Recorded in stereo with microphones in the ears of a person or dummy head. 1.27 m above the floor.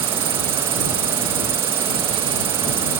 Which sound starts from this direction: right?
An insect, at 0.0 s.